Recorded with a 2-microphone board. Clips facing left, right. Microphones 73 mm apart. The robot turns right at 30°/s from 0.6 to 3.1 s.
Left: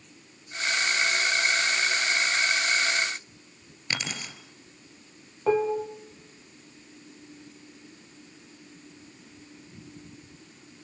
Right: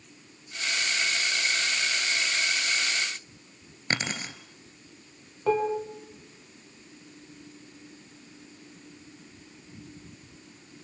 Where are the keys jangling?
40° right (ahead or behind), 2.5 m.